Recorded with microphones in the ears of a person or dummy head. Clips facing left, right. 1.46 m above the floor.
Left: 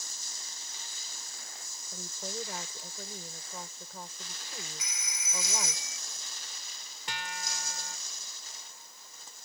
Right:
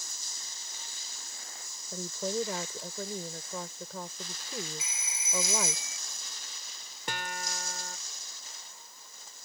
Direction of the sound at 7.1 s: 40° right (ahead or behind).